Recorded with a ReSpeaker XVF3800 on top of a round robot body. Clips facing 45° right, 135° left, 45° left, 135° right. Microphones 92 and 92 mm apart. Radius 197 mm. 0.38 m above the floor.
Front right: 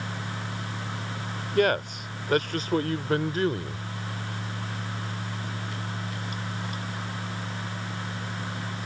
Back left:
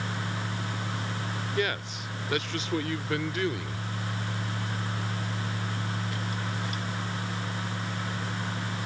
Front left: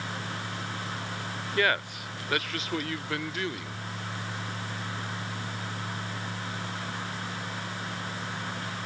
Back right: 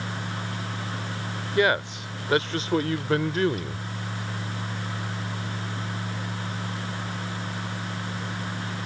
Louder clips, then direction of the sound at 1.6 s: Front right 9 dB, back right 5 dB; 65° right.